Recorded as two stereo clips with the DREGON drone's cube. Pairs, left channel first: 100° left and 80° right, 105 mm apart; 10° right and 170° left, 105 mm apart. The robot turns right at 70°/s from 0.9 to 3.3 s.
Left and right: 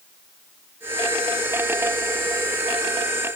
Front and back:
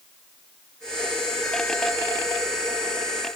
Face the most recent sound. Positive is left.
No sound to turn to.